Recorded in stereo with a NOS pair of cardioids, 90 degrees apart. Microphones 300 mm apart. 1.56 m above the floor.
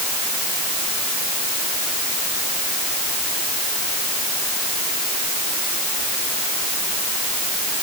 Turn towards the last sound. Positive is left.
No sound to turn to.